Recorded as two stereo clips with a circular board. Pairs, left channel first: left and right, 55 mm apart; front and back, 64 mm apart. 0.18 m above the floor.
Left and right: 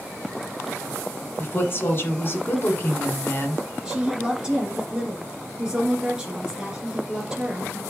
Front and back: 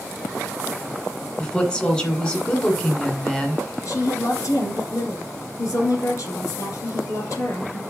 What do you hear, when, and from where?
1.4 s a woman speaking: 65° left, 2 m
3.9 s a woman speaking: 15° right, 2 m